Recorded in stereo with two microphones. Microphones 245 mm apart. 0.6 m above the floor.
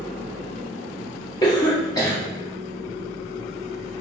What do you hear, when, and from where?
1.4 s a cough: 15° left (ahead or behind), 0.8 m